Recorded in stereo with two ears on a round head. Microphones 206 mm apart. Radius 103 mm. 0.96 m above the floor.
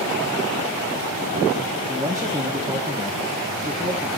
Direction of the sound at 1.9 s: 15° right (ahead or behind).